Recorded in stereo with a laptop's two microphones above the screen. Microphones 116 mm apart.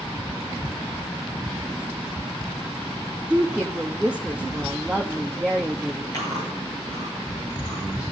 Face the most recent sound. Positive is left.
turn(degrees=35)  # may be behind; listen again after turning